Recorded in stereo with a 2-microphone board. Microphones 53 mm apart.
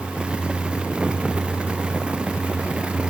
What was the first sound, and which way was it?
Only background noise.